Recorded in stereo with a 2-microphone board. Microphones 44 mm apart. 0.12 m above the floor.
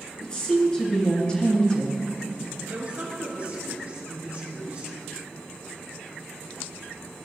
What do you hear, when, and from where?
0.2 s a woman speaking: 20° left (ahead or behind), 1.6 m
2.7 s a woman speaking: 30° right (ahead or behind), 2.0 m